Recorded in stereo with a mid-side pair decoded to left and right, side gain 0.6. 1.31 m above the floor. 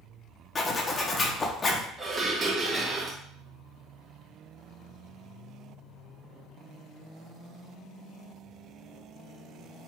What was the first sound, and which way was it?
A zipper, 30° left.